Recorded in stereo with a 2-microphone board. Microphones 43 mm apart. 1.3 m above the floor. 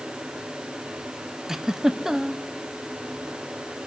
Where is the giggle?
10° right (ahead or behind), 0.6 m.